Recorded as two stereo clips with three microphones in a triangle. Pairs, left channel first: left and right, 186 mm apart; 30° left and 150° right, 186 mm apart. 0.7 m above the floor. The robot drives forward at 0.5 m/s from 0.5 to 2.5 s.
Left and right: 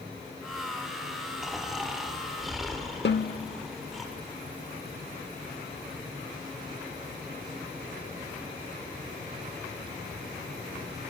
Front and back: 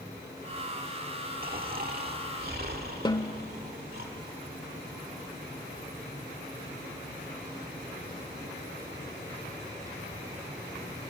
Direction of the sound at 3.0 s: 95° left.